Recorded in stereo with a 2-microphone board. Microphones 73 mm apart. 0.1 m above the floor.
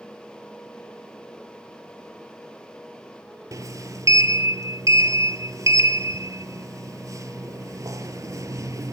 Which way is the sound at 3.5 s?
50° right (ahead or behind).